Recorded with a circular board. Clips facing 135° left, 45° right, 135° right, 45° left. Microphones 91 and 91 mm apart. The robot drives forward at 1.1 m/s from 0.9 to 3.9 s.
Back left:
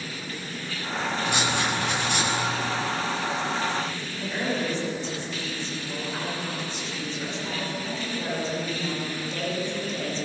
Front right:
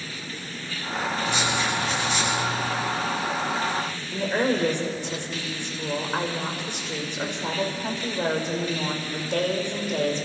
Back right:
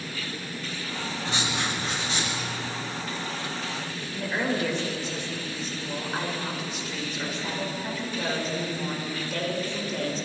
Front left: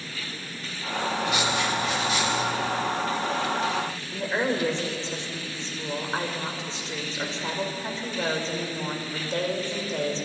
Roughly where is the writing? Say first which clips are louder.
Back left 1 dB, front left 1 dB; behind.